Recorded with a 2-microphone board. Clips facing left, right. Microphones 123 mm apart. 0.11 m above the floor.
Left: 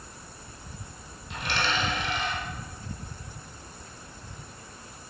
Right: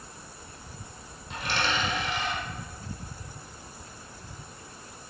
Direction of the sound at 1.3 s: 40° right (ahead or behind).